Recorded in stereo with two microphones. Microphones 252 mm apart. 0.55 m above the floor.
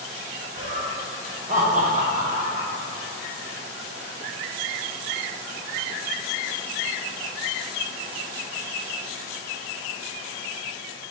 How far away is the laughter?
About 0.8 m.